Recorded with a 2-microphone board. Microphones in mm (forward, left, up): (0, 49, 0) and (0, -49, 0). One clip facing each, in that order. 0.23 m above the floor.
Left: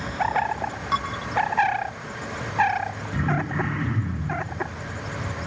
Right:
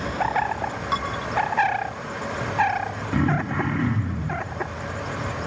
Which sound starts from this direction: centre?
Dishes clattering, at 0.9 s.